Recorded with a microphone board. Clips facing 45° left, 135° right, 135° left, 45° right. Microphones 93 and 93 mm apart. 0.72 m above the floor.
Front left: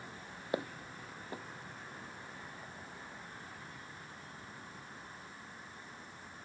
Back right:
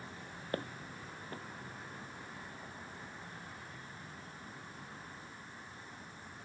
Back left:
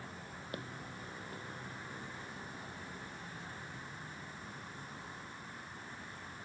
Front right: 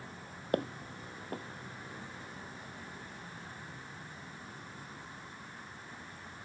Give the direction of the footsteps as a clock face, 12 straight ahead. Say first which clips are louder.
Front left 3 dB, front right 13 dB; 1 o'clock.